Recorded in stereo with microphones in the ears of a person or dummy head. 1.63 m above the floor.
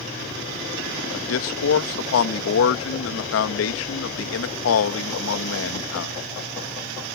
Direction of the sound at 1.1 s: 70° left (ahead or behind).